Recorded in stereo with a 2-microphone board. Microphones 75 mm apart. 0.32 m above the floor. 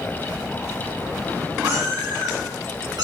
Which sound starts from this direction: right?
A cat meowing, at 1.6 s.